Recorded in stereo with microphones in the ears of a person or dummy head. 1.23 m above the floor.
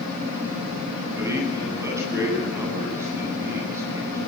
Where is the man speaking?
20° right (ahead or behind), 9 m.